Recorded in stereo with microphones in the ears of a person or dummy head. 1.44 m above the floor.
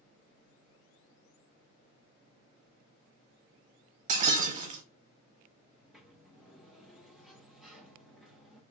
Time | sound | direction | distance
4.1 | breaking glass | 40° right (ahead or behind) | 1.0 m
5.8 | a sliding door | 5° left (ahead or behind) | 0.9 m